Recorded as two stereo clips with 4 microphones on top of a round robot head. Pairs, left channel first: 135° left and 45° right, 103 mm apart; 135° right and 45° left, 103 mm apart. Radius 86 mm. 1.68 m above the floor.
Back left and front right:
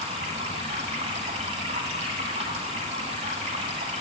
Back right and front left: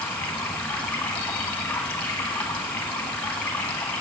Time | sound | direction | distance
0.0 | running water | 60° right | 1.3 m